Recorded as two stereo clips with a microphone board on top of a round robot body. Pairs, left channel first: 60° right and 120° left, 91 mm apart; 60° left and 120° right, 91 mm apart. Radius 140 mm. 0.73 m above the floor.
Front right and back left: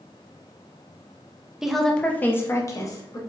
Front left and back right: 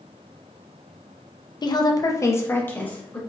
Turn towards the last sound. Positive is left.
turn(degrees=-15)